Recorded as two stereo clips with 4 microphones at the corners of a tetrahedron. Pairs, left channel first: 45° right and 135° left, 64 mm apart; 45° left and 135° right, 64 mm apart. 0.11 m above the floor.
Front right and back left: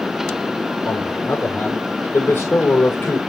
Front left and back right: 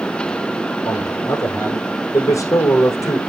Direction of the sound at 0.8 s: 15° left.